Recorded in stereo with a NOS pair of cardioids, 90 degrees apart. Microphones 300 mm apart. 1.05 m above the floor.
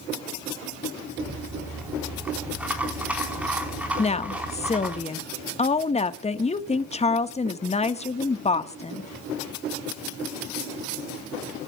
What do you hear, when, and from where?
1.2 s a rattle: 5° right, 4 m
4.0 s a woman speaking: 20° left, 1.4 m